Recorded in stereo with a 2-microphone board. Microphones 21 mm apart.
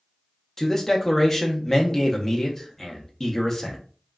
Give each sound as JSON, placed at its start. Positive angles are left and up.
{"t": 0.6, "sound": "a man speaking", "side_deg": 20, "distance_m": 0.6}